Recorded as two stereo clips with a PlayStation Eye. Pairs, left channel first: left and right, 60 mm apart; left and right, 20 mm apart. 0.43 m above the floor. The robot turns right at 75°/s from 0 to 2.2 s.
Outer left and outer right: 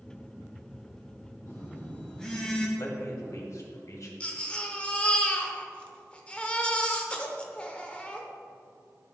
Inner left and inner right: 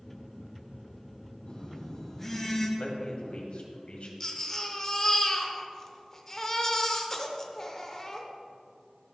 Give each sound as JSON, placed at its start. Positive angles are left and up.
{"t": 1.5, "sound": "a phone buzzing", "azimuth_deg": 110, "distance_m": 2.0}
{"t": 2.8, "sound": "a man speaking", "side_deg": 60, "distance_m": 1.9}
{"t": 4.2, "sound": "a baby crying", "side_deg": 20, "distance_m": 1.0}